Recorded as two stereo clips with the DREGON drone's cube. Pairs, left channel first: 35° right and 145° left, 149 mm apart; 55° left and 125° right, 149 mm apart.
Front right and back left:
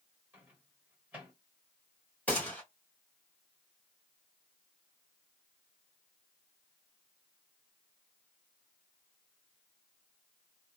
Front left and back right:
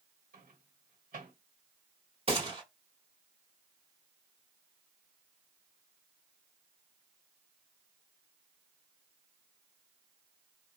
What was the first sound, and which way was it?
A microwave, 135° right.